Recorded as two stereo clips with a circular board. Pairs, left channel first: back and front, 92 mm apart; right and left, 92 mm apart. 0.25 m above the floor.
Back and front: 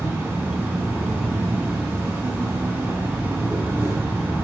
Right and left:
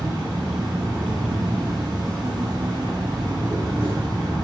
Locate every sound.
0.0 s an insect: 65° left, 0.8 m